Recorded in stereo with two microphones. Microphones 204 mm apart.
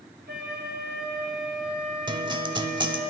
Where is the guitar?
20° right (ahead or behind), 0.6 m.